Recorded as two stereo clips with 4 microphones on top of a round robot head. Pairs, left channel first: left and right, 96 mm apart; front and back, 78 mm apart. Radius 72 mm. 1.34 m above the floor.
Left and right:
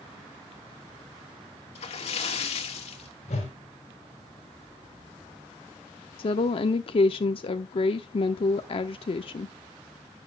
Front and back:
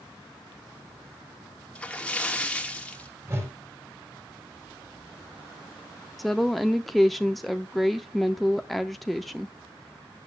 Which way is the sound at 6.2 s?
90° left.